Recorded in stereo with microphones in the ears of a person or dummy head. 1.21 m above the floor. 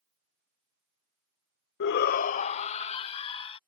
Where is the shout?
55° left (ahead or behind); by 3.6 s 25° left (ahead or behind).